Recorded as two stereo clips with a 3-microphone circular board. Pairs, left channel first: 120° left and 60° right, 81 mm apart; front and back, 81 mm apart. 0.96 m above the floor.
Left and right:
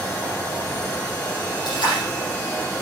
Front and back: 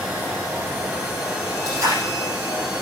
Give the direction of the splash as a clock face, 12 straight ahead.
8 o'clock.